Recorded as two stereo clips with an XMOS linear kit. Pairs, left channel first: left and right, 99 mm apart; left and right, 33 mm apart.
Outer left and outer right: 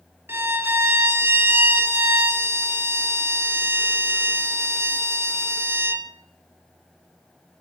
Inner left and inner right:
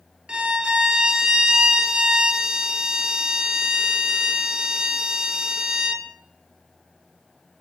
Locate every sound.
0.3 s a violin: 25° right (ahead or behind), 0.9 m